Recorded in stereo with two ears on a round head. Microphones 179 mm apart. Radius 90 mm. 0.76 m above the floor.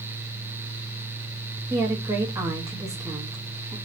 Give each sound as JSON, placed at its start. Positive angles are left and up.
{"t": 1.7, "sound": "a woman speaking", "side_deg": -15, "distance_m": 0.9}